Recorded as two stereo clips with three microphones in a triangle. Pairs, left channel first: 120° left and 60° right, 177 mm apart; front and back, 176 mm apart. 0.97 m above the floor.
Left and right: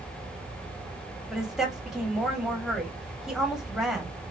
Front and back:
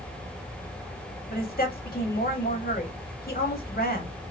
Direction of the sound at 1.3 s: 30° left.